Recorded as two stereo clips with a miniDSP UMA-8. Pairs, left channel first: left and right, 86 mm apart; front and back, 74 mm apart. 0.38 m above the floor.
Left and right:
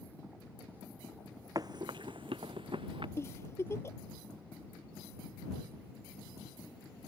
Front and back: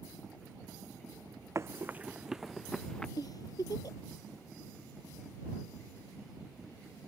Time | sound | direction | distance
1.6 | running footsteps | 130° right | ?
3.2 | a giggle | 30° left | ?